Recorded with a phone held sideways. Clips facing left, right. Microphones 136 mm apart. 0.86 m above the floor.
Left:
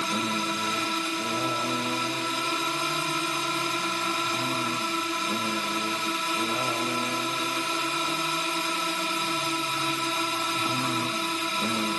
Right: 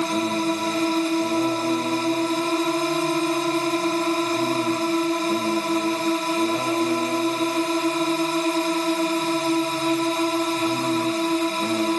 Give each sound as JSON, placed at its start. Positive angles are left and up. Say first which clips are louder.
{"t": 0.0, "sound": "a drone", "louder": "right 7 dB", "side_deg": -40}